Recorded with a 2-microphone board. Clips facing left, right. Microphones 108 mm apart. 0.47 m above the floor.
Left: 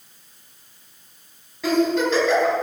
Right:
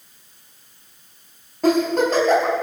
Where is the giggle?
45° right (ahead or behind), 4 m.